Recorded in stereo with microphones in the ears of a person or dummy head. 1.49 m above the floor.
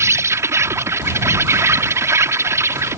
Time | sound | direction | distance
0.0 | an insect | 15° right (ahead or behind) | ?